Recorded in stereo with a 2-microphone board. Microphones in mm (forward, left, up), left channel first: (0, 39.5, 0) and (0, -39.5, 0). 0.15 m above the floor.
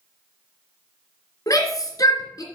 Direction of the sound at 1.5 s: 50° left (ahead or behind).